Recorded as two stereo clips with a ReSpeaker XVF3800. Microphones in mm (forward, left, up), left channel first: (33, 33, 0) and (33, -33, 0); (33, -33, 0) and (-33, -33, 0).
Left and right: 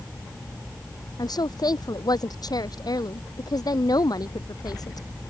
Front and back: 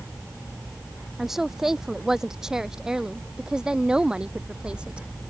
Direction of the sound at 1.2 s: 95° left.